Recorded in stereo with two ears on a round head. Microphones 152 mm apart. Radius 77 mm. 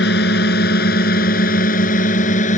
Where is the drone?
65° left (ahead or behind); by 2.6 s 45° left (ahead or behind).